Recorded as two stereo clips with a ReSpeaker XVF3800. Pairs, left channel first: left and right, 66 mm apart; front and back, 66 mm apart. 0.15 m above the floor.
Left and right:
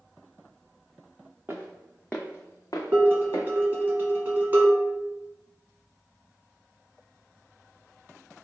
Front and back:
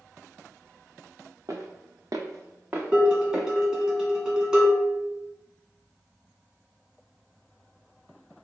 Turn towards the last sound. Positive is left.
turn(degrees=-110)